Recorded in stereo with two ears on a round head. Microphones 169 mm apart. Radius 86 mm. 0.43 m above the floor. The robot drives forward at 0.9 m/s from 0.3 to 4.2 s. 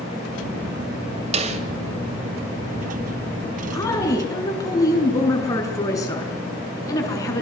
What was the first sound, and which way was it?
A snare drum, 35° right (ahead or behind).